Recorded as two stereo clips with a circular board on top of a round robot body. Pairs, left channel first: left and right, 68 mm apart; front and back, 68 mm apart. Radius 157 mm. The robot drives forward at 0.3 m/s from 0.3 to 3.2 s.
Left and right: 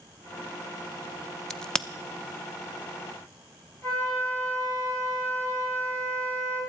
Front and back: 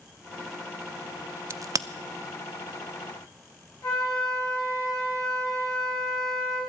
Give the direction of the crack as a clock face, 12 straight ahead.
6 o'clock.